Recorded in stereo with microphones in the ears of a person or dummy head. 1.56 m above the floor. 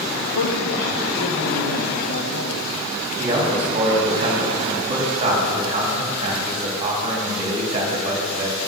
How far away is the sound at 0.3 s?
About 2.5 m.